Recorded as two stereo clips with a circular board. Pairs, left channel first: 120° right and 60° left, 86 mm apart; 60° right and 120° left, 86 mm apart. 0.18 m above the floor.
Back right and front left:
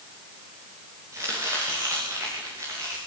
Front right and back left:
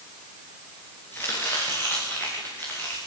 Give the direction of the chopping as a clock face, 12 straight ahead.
12 o'clock.